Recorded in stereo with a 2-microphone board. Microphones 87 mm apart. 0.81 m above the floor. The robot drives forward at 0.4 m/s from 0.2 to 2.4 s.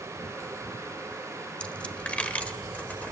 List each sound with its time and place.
1.6 s a dropped coin: 15° left (ahead or behind), 1.5 m